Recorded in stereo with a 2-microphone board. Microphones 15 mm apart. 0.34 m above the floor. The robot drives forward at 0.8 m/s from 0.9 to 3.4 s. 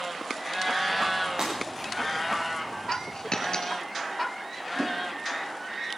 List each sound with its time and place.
1.4 s breaking glass: 50° right (ahead or behind), 8.5 m; by 1.9 s 55° right (ahead or behind), 8.5 m
2.9 s a dropped coin: 60° left (ahead or behind), 2 m; by 3.8 s 70° left (ahead or behind), 1.9 m